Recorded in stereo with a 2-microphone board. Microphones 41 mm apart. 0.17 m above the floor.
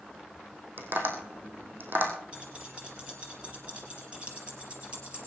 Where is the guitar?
No guitar in this recording.